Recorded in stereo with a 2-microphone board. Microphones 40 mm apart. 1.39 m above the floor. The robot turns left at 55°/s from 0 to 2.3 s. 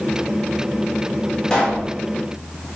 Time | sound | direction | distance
1.5 | a pop | 20° left (ahead or behind) | 1.3 m